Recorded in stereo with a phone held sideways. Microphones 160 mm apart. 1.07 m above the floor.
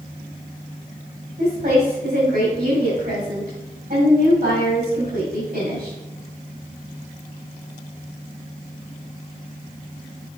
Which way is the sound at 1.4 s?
70° right (ahead or behind).